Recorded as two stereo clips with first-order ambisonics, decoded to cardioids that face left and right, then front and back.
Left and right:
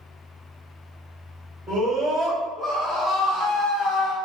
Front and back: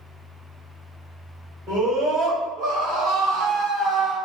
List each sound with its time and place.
1.7 s a scream: 140° right, 1.5 m; by 4.1 s 115° left, 1.0 m